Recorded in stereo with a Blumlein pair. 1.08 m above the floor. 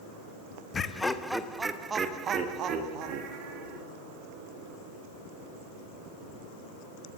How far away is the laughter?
About 0.9 m.